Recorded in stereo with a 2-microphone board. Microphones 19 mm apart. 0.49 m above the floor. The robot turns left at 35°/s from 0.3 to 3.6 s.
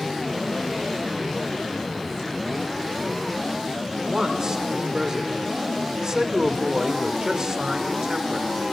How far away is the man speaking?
About 1.6 m.